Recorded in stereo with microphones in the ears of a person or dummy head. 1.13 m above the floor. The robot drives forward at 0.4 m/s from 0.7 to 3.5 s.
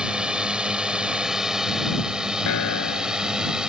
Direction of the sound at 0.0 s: 5° right (ahead or behind).